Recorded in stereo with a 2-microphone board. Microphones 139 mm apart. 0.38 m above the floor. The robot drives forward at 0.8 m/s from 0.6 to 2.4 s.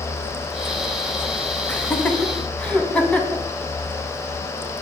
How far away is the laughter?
About 2 m.